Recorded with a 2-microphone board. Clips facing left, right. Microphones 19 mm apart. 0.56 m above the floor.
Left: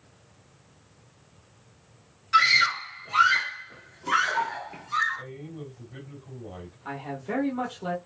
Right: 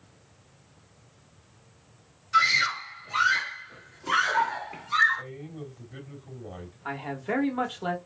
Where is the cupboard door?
No cupboard door in this recording.